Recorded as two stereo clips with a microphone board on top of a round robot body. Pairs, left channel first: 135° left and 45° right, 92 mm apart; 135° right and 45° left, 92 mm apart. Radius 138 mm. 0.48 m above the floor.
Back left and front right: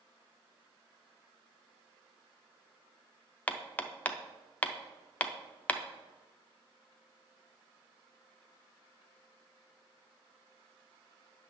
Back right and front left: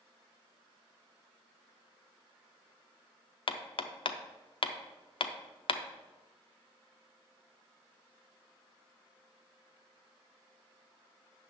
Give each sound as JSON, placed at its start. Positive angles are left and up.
{"t": 3.5, "sound": "hammering", "azimuth_deg": -150, "distance_m": 0.7}